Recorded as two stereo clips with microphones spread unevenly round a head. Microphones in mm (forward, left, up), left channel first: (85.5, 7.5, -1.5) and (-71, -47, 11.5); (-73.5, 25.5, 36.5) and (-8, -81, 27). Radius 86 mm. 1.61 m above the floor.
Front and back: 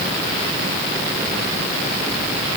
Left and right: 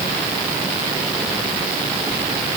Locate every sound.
Only background noise.